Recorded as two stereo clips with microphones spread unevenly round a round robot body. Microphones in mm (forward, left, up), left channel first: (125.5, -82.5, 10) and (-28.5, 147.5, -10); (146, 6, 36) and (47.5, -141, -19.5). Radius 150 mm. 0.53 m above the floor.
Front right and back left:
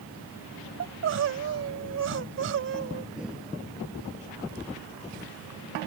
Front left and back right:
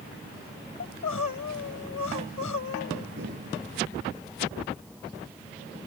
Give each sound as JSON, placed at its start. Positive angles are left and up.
{"t": 0.8, "sound": "crying", "azimuth_deg": 85}
{"t": 3.2, "sound": "breathing", "azimuth_deg": -150}